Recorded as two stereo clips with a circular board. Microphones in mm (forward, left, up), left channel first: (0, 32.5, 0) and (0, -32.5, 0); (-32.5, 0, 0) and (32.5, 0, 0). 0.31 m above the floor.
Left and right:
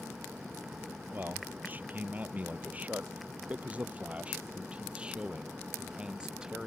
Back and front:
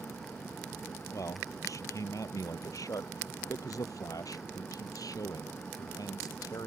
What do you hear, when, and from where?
1.1 s a man speaking: 150° right; by 6.7 s 165° right